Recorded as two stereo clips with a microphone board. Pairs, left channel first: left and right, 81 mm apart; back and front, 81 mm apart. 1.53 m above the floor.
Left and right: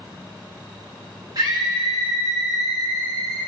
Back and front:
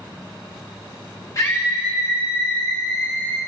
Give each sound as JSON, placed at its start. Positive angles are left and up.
{"t": 1.4, "sound": "a scream", "azimuth_deg": -130, "distance_m": 2.5}